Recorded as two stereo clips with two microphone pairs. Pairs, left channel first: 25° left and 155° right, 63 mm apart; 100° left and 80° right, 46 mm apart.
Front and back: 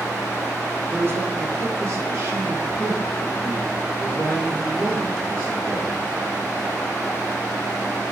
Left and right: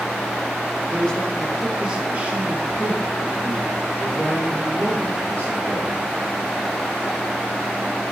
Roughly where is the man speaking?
Behind left.